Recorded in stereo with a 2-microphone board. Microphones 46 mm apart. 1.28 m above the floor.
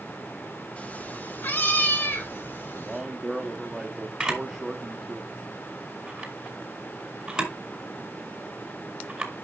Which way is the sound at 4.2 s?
20° right (ahead or behind).